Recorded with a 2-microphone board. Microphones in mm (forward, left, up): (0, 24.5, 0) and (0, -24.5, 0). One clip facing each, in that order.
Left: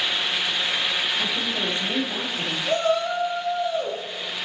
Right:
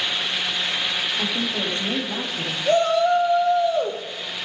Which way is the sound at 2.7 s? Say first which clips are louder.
Right 5 dB; 75° right (ahead or behind).